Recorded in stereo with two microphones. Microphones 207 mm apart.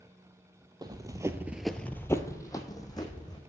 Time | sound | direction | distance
0.8 | running footsteps | 20° right (ahead or behind) | 1.0 m